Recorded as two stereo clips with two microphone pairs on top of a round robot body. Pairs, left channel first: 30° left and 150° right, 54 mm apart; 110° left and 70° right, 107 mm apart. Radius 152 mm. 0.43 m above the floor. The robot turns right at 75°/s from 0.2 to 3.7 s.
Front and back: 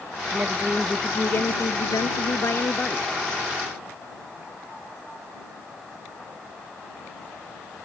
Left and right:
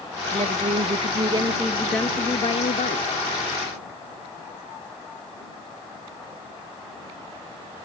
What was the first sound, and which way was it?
A woman speaking, 95° right.